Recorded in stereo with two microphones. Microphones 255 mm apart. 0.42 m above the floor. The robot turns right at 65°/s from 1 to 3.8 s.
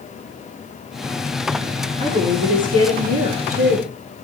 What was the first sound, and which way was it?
A woman speaking, 150° right.